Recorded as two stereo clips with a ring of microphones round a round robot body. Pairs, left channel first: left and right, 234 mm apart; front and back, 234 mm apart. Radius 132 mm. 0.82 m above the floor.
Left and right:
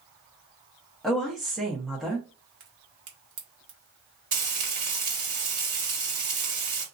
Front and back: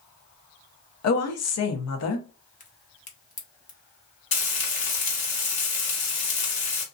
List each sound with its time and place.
1.0 s a woman speaking: straight ahead, 0.9 m
2.6 s a crack: 60° right, 1.0 m
4.3 s frying: 35° right, 1.5 m